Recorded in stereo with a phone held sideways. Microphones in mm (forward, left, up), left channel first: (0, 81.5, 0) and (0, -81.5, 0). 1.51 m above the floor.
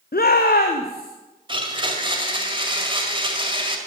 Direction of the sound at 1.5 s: 30° right (ahead or behind).